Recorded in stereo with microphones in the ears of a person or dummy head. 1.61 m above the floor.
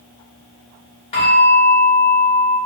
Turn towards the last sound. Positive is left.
turn(degrees=25)  # may be behind; listen again after turning